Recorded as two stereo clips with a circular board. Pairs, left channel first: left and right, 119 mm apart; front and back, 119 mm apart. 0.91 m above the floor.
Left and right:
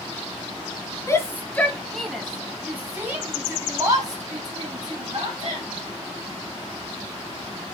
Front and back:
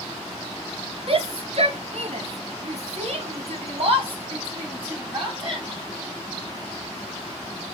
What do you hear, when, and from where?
1.1 s a shout: 155° left, 1.5 m; by 5.7 s 135° right, 3 m